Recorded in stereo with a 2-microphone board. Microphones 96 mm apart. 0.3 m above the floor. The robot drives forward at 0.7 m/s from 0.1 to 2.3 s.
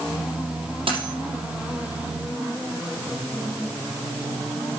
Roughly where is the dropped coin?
Right.